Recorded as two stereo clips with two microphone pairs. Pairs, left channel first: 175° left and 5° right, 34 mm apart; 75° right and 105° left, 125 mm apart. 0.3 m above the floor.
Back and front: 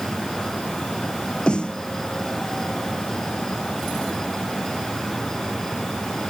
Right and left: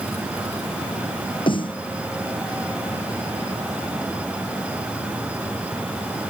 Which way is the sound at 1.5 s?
125° right.